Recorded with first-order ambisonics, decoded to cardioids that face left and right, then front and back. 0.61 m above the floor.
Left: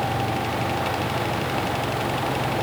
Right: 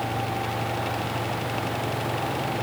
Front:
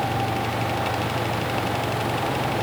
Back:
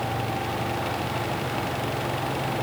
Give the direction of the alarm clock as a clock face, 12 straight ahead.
No alarm clock in this recording.